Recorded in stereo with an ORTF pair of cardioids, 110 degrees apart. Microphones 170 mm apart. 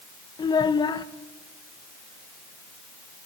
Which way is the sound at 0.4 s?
25° left.